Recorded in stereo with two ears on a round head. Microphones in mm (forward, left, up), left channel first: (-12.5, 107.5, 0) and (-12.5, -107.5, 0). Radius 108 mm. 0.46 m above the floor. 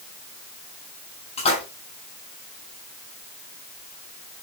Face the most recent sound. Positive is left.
turn(degrees=25)  # may be behind; listen again after turning